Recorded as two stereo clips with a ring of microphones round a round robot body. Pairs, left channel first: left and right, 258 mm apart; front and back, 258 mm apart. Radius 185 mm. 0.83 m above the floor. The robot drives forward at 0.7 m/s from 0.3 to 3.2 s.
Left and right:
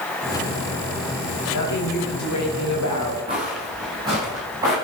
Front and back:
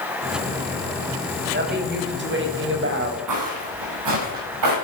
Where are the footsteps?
165° right, 5.5 m; by 4.7 s 170° right, 7 m.